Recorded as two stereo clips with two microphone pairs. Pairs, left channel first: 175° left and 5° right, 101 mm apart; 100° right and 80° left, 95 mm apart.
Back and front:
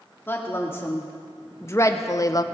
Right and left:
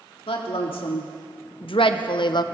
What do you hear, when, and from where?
0.3 s a woman speaking: 120° right, 2.5 m; by 2.4 s 135° right, 0.6 m